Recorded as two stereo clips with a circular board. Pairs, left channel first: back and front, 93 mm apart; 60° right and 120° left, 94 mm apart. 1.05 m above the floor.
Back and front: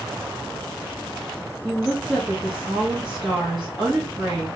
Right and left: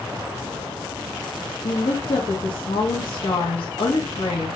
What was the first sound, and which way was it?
A woman speaking, 80° right.